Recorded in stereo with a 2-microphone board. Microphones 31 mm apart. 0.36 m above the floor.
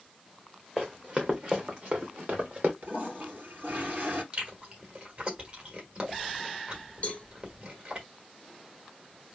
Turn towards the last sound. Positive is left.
turn(degrees=45)  # may be behind; listen again after turning